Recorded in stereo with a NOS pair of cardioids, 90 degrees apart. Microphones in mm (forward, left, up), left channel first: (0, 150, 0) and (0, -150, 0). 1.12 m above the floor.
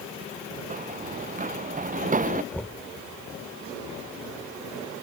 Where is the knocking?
5° left.